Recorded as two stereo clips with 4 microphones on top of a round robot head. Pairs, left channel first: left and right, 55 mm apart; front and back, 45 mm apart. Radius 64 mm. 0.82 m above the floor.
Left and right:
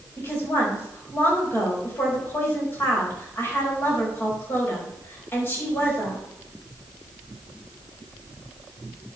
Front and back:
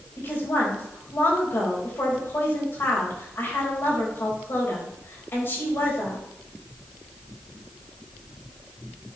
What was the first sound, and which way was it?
A woman speaking, 35° left.